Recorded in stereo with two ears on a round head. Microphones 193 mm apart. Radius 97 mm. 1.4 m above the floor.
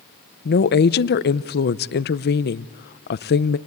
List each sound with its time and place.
0.5 s a woman speaking: 45° left (ahead or behind), 0.6 m